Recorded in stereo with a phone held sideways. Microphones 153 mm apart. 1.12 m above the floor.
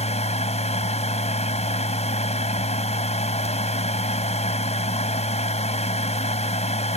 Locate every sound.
0.0 s a machine running: 45° left (ahead or behind)